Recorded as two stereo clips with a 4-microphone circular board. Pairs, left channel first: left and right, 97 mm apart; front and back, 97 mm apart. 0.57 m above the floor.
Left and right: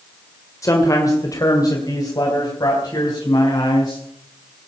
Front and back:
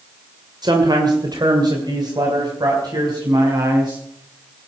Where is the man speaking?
140° left, 2 m; by 4.0 s 135° left, 4.5 m.